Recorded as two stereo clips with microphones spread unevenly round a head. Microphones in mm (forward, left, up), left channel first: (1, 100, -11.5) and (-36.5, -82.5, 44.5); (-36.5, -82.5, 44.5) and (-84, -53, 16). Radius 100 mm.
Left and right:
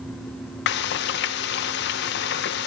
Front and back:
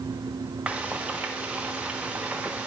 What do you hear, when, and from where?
0.7 s frying: 40° left, 0.5 m